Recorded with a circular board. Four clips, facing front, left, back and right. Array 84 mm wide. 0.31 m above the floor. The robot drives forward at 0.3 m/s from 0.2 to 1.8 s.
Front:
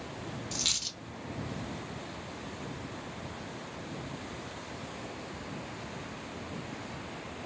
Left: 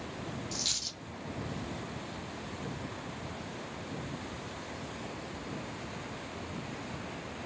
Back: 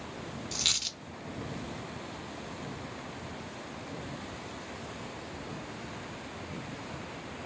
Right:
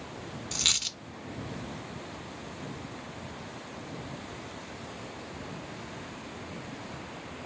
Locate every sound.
0.5 s a dropped coin: 100° right, 0.5 m; by 1.0 s 115° right, 0.6 m